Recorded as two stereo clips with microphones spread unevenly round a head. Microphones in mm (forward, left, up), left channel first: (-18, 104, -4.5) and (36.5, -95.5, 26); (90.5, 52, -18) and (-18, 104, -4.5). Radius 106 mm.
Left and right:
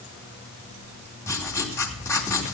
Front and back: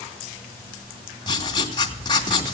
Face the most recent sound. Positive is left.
turn(degrees=25)